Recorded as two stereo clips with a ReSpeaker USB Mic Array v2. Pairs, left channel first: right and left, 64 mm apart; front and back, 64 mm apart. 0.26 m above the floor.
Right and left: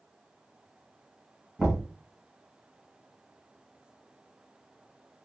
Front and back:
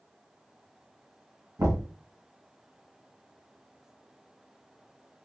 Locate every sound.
1.6 s knocking: 165° left, 1.4 m